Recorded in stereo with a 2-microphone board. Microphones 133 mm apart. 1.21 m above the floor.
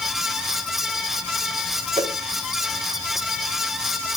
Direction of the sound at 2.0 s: 40° right (ahead or behind).